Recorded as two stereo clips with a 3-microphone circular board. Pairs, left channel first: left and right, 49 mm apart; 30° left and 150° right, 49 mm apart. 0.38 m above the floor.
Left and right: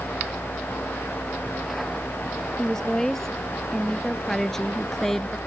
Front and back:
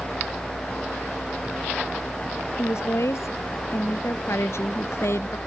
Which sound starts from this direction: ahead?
A woman speaking, at 2.6 s.